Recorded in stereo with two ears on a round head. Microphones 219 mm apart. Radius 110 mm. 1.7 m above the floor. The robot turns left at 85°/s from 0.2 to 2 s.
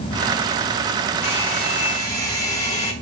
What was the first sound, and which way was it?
A hair dryer, 80° left.